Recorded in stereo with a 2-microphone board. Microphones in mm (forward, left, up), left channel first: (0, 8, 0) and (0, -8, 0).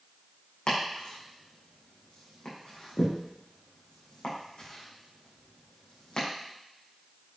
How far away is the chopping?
About 4.5 m.